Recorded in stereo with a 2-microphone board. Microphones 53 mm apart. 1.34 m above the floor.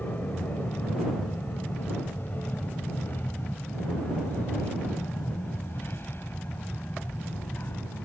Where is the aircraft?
35° left (ahead or behind); by 8.1 s 50° left (ahead or behind).